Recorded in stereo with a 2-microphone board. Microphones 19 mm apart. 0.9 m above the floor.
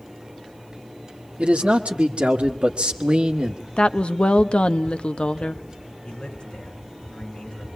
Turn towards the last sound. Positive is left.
turn(degrees=45)  # may be behind; listen again after turning